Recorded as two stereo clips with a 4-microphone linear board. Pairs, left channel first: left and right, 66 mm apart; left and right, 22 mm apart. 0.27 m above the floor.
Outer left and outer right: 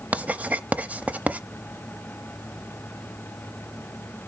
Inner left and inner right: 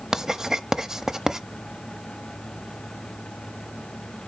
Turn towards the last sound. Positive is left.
turn(degrees=-25)  # may be behind; listen again after turning